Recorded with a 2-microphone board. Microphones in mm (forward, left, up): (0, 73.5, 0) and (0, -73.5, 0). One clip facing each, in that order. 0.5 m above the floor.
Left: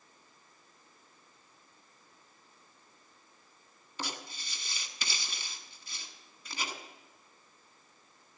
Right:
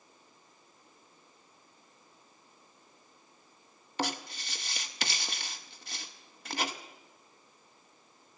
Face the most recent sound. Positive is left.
turn(degrees=-70)  # may be behind; listen again after turning